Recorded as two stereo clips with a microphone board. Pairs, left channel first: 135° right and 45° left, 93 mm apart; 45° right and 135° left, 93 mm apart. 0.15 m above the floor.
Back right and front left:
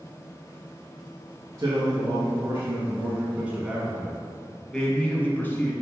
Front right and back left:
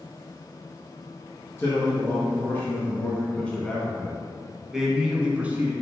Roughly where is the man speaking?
Ahead.